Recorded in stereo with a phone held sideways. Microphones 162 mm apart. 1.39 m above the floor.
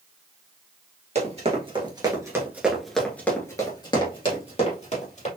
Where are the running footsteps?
45° right (ahead or behind), 1.9 m; by 5.3 s 50° left (ahead or behind), 2.5 m.